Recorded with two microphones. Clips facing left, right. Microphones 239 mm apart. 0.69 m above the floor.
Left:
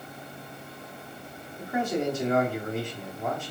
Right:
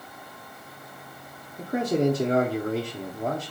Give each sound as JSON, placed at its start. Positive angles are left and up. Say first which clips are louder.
{"t": 1.6, "sound": "a man speaking", "louder": "right 5 dB", "side_deg": -40, "distance_m": 1.4}